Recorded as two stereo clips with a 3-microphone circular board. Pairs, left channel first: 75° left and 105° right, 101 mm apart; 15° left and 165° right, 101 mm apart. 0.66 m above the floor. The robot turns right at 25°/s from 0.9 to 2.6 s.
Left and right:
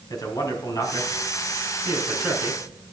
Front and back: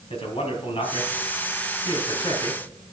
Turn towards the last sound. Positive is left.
turn(degrees=70)